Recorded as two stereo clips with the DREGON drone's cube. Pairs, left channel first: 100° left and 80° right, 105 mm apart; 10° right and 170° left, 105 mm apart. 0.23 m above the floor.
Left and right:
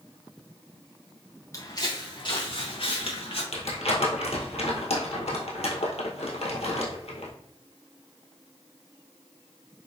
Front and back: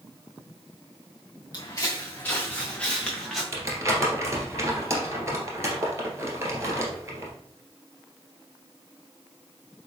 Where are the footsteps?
40° left, 1.2 m; by 3.4 s 75° left, 2 m.